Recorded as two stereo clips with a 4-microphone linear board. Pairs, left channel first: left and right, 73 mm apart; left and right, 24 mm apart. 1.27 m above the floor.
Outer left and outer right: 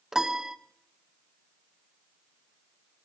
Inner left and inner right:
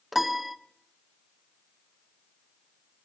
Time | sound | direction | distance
0.1 | a piano | 5° right (ahead or behind) | 0.7 m